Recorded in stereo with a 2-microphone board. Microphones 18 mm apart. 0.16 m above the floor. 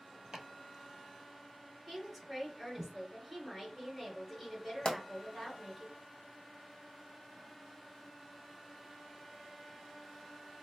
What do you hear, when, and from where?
0.3 s chopping: 45° right (ahead or behind), 0.9 m
1.9 s a woman speaking: 20° right (ahead or behind), 1.3 m
4.8 s a pop: 55° left (ahead or behind), 0.9 m